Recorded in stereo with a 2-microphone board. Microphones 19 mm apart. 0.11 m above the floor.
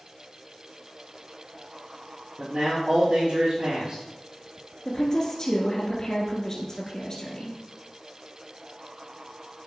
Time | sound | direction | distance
2.4 | a man speaking | 50° right (ahead or behind) | 3.5 m
4.8 | a woman speaking | 25° left (ahead or behind) | 1.5 m